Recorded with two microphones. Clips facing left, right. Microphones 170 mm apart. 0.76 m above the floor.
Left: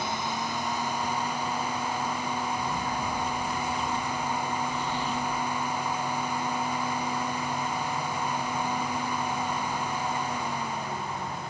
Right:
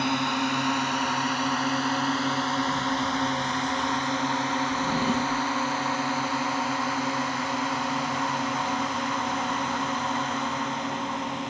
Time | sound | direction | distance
0.0 | a drone | 70° right (ahead or behind) | ?
4.7 | a drawer | 40° right (ahead or behind) | ?